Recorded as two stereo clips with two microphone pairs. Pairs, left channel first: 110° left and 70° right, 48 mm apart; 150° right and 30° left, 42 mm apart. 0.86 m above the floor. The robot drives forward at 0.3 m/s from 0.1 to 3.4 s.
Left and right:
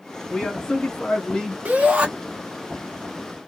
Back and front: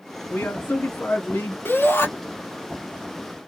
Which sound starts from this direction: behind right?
A shout, at 1.6 s.